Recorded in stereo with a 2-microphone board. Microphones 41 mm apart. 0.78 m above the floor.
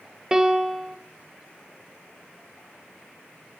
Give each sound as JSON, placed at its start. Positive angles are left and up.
{"t": 0.3, "sound": "a piano", "side_deg": -15, "distance_m": 0.6}